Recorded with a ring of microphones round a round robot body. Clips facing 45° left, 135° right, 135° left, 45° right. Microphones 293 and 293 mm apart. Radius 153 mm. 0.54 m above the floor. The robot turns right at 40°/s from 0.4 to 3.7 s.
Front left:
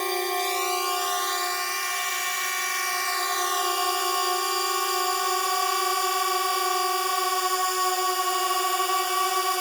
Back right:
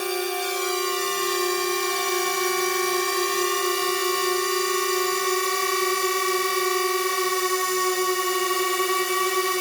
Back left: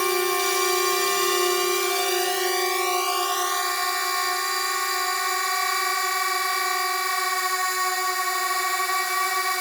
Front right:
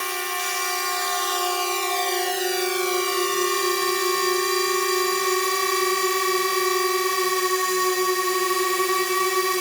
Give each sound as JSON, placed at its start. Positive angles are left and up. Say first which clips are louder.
{"t": 0.0, "sound": "a drone", "louder": "back right 2 dB, back left 9 dB", "azimuth_deg": 150}